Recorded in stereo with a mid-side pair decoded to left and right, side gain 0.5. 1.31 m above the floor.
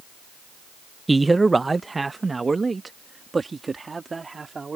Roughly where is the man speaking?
Ahead.